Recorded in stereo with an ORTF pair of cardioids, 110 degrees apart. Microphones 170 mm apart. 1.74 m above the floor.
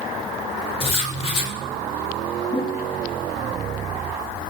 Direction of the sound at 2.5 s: 30° left.